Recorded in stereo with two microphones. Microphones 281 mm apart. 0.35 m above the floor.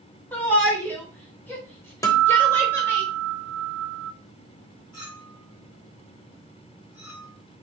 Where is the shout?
5° left (ahead or behind), 1.6 m; by 3.0 s 10° left (ahead or behind), 1.6 m.